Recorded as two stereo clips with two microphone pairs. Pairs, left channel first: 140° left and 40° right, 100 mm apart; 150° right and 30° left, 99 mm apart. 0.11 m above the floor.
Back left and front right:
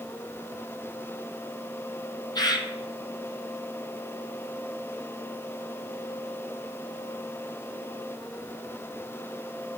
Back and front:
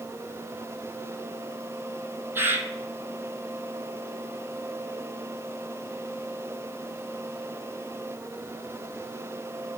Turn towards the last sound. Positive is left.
turn(degrees=95)